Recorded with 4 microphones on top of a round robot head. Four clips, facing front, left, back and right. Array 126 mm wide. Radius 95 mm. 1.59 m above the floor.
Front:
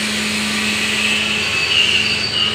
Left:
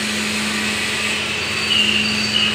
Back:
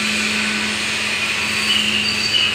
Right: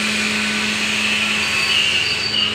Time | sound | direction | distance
1.4 | a bird | 45° left | 5 m